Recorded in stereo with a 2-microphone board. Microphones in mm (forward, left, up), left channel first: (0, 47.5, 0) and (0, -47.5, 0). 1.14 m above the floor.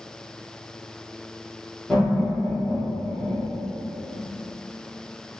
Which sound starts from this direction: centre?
Laughter, at 1.9 s.